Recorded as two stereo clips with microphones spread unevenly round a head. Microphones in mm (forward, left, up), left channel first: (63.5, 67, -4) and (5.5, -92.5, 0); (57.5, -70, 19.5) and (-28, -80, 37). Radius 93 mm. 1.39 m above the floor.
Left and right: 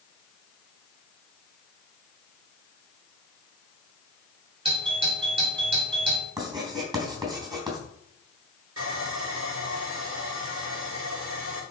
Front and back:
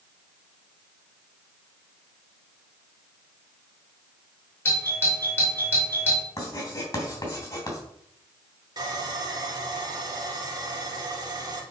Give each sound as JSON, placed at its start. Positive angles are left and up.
{"t": 4.7, "sound": "a doorbell", "azimuth_deg": -55, "distance_m": 4.0}
{"t": 6.4, "sound": "writing", "azimuth_deg": -45, "distance_m": 3.5}
{"t": 8.8, "sound": "sawing", "azimuth_deg": -135, "distance_m": 2.5}